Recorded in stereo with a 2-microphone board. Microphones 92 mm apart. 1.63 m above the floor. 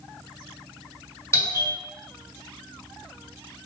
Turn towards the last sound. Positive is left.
turn(degrees=30)  # may be behind; listen again after turning